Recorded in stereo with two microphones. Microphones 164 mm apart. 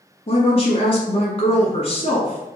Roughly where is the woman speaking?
Left.